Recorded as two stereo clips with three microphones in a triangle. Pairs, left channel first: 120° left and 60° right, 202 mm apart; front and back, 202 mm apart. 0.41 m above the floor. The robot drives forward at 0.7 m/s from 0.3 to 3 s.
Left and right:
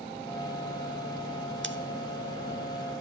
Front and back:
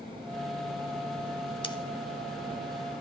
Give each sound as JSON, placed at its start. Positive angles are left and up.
{"t": 1.6, "sound": "scissors", "azimuth_deg": -60, "distance_m": 0.8}